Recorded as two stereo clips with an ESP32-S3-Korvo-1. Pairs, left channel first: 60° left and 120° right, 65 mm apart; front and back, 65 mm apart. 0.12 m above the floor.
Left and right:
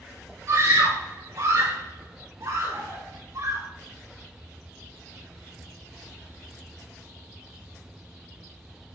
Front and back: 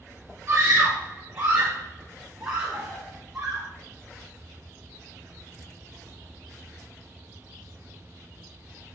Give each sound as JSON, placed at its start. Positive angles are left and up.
{"t": 0.5, "sound": "a scream", "azimuth_deg": -120, "distance_m": 3.5}